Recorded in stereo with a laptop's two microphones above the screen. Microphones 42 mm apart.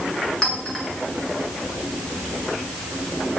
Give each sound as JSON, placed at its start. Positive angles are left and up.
{"t": 0.4, "sound": "a clink", "side_deg": 10, "distance_m": 8.5}